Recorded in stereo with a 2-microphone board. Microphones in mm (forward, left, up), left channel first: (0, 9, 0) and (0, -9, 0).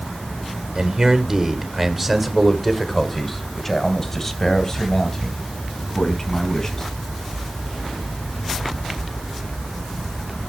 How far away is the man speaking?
About 1.2 m.